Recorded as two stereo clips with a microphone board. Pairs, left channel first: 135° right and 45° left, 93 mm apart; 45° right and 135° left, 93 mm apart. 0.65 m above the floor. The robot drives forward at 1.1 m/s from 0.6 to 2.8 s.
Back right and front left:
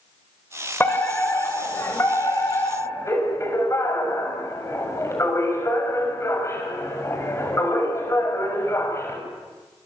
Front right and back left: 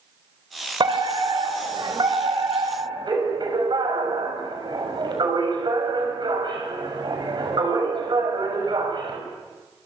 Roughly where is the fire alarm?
Behind.